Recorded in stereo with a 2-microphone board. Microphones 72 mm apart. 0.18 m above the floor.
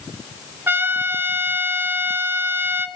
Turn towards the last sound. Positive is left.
turn(degrees=-30)  # may be behind; listen again after turning